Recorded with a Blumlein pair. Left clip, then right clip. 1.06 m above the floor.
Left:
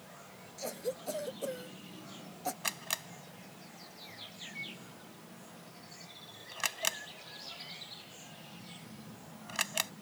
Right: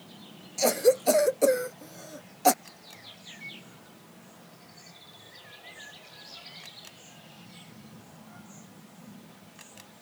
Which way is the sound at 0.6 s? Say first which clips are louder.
Right 16 dB; 55° right.